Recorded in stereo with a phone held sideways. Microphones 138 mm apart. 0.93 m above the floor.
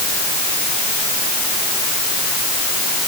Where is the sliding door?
I don't hear a sliding door.